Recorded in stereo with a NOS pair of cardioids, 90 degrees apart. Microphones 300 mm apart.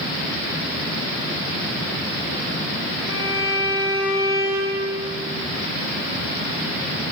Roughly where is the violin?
Ahead left.